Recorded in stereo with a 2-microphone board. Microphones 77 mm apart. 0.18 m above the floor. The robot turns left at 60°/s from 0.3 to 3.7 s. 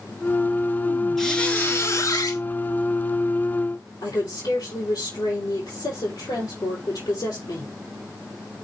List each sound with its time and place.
1.2 s a squeak: straight behind, 1.8 m; by 2.4 s 105° left, 1.8 m
4.0 s a woman speaking: 70° left (ahead or behind), 4.5 m